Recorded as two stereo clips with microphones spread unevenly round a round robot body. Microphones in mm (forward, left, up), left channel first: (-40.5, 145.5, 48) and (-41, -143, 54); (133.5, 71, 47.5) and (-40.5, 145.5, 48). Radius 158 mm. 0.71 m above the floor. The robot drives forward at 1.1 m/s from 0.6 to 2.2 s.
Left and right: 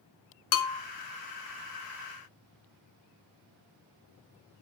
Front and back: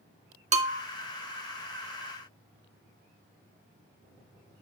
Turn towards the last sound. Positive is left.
turn(degrees=155)